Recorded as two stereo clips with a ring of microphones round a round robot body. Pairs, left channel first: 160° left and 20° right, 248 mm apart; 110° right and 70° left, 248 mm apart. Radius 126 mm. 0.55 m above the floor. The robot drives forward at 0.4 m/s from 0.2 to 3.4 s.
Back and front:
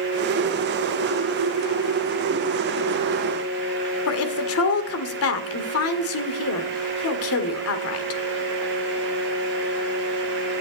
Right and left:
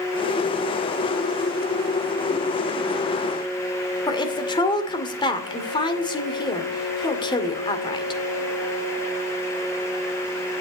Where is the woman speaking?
175° left, 2 m.